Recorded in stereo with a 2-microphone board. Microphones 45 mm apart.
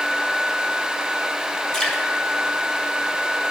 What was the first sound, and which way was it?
Dripping, 20° left (ahead or behind).